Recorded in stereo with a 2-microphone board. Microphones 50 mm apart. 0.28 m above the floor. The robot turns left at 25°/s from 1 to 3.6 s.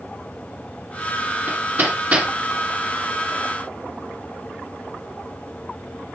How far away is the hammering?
About 2.5 m.